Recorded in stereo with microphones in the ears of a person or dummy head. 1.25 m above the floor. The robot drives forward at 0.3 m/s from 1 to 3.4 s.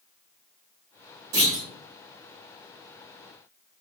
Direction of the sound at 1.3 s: 50° right (ahead or behind).